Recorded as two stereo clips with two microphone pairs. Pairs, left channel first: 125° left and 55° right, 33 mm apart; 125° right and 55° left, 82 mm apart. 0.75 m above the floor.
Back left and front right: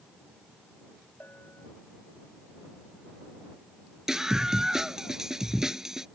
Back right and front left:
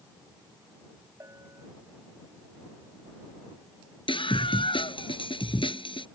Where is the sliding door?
No sliding door in this recording.